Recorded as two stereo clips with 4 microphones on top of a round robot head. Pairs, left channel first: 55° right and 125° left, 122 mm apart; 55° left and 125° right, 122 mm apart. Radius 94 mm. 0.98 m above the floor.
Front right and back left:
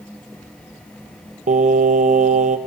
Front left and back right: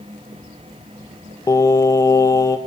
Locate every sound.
1.5 s singing: 120° left, 0.7 m